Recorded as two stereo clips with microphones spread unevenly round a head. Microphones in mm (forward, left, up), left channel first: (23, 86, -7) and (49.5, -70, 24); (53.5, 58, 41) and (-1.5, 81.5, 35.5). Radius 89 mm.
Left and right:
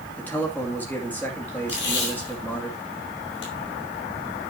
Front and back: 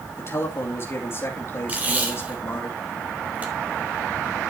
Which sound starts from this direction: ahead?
A man speaking, at 0.2 s.